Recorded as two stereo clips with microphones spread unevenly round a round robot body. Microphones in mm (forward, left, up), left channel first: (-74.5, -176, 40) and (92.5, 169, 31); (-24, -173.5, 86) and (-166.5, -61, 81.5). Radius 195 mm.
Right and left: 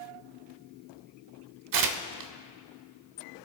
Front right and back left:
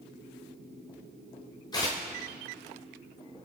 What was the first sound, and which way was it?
Tearing paper, 35° left.